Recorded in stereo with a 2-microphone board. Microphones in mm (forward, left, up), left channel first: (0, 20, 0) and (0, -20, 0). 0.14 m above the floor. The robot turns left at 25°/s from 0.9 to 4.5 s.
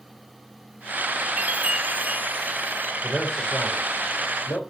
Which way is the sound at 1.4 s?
55° right.